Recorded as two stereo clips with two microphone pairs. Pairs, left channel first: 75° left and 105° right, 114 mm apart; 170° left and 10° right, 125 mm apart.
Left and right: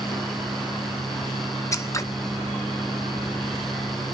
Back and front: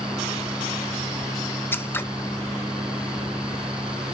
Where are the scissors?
110° left, 0.6 m.